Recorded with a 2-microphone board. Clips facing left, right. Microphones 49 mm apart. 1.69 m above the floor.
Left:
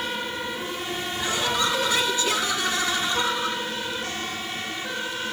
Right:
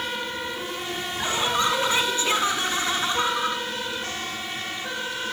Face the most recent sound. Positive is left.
turn(degrees=-30)  # may be behind; listen again after turning